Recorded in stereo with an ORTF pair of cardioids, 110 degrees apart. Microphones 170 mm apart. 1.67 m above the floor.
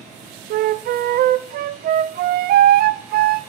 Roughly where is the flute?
Ahead right.